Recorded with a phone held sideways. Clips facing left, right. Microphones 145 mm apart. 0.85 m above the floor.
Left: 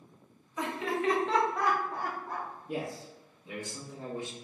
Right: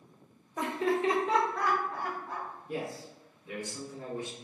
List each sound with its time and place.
0.6 s laughter: 50° right (ahead or behind), 0.8 m; by 2.5 s 55° left (ahead or behind), 1.0 m
2.7 s a man speaking: 20° left (ahead or behind), 0.8 m